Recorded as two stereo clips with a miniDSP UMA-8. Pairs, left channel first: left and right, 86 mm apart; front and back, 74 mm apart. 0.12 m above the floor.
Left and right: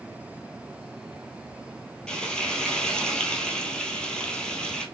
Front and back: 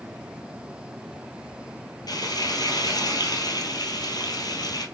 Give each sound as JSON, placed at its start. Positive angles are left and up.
{"t": 2.1, "sound": "frying", "azimuth_deg": 10, "distance_m": 1.1}